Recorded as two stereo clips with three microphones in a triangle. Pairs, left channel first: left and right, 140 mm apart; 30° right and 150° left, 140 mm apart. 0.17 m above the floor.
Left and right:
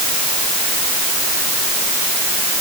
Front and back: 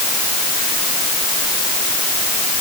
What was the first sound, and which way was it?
Only background noise.